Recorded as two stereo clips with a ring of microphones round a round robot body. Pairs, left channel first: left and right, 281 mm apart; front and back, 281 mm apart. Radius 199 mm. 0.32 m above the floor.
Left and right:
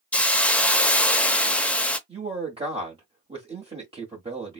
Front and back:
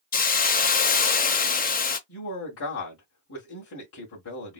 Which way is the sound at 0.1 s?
10° left.